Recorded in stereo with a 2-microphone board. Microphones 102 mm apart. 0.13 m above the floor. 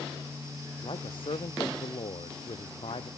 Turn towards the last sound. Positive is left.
turn(degrees=65)  # may be behind; listen again after turning